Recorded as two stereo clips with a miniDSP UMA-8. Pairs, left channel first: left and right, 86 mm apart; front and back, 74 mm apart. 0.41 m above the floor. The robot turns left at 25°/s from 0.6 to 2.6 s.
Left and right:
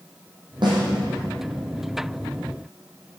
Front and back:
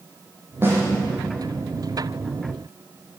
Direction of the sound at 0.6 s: 120° right.